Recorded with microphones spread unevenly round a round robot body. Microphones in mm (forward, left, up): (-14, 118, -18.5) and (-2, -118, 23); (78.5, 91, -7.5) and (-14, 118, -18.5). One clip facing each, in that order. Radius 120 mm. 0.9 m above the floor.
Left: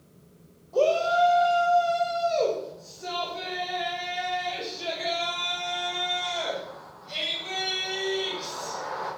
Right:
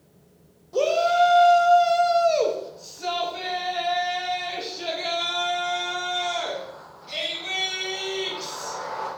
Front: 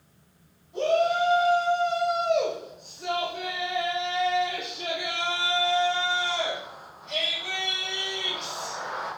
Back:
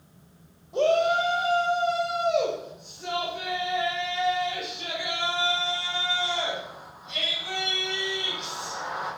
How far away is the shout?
About 1.1 m.